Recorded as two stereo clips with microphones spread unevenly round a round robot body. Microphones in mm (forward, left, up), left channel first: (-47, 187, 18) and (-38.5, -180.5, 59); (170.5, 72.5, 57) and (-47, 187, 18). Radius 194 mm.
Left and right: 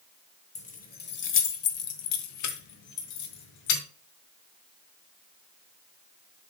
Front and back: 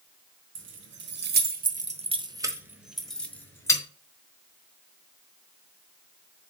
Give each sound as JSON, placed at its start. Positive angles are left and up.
{"t": 0.6, "sound": "keys jangling", "azimuth_deg": 155, "distance_m": 1.3}